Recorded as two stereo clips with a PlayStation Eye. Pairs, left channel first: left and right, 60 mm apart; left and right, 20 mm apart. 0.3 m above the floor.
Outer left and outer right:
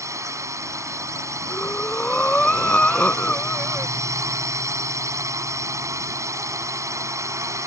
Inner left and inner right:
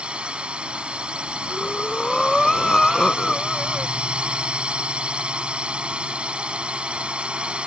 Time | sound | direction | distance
0.0 | a drone | 60° right (ahead or behind) | ?
1.5 | breathing | 20° left (ahead or behind) | ?